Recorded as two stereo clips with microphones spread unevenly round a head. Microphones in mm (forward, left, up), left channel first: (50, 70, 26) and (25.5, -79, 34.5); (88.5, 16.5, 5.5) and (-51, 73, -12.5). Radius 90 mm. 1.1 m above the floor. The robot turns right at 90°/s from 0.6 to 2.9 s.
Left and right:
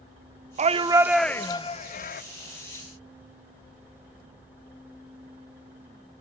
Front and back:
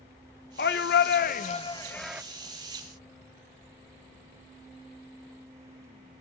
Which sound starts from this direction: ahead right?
A shout, at 0.6 s.